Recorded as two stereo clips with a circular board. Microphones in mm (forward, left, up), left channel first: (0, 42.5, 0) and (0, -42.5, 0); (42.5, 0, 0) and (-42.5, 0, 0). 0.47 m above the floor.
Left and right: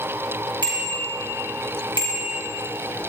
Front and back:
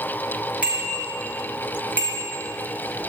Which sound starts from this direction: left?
A bicycle bell, at 0.6 s.